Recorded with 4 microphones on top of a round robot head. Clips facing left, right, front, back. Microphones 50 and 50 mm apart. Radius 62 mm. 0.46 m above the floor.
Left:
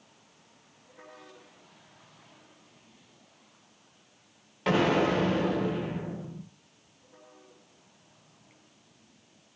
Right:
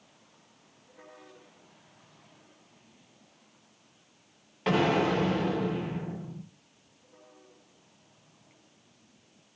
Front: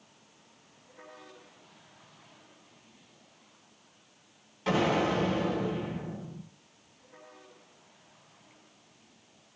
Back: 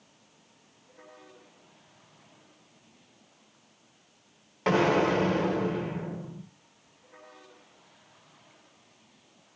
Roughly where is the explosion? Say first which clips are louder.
Left 1 dB, back 3 dB; behind.